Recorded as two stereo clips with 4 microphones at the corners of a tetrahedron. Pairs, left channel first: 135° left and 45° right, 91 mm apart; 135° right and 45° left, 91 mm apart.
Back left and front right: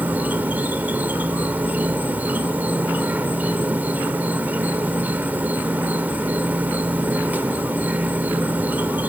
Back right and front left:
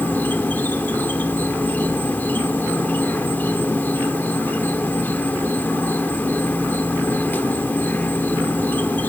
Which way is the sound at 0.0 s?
90° right.